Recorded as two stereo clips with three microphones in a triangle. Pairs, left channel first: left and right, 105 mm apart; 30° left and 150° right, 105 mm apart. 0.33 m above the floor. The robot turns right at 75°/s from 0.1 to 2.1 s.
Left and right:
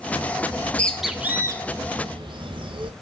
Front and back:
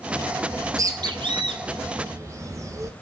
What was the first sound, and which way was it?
A bird, 145° left.